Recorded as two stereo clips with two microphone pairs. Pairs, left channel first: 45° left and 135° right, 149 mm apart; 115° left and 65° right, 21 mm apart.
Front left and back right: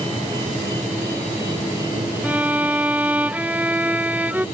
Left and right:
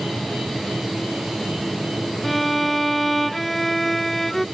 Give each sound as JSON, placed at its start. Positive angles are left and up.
{"t": 2.2, "sound": "a violin", "azimuth_deg": 175}